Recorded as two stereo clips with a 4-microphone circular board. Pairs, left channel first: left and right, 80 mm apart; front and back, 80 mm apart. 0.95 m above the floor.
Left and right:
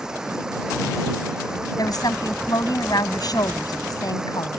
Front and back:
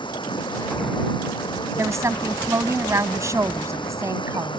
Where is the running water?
5° right.